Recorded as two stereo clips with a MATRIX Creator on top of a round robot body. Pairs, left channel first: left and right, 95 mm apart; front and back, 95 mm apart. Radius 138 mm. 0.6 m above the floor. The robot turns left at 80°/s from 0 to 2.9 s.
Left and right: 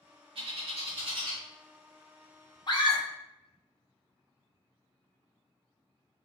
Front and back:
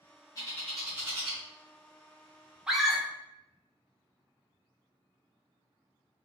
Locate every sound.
0.3 s a bird: 60° right, 0.8 m; by 1.4 s 145° right, 0.8 m
2.7 s a scream: 100° left, 1.0 m; by 3.0 s 80° left, 1.0 m